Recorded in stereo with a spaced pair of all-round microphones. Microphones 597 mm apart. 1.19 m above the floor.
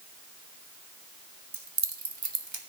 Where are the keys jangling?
80° right, 1.3 m; by 2.6 s 45° right (ahead or behind), 1.2 m.